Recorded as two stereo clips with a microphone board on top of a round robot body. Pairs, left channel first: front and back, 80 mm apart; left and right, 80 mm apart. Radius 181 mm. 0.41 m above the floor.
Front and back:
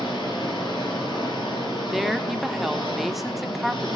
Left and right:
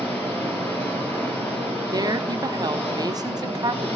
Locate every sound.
0.0 s an engine running: 25° left, 6.5 m
1.9 s a woman speaking: 95° right, 1.5 m